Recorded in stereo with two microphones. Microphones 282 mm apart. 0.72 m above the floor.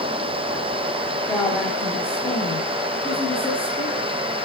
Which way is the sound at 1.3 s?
5° left (ahead or behind).